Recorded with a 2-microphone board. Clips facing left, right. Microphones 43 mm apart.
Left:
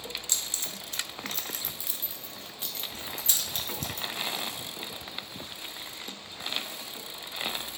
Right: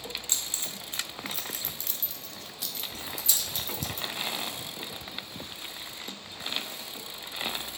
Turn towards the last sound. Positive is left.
turn(degrees=50)  # may be behind; listen again after turning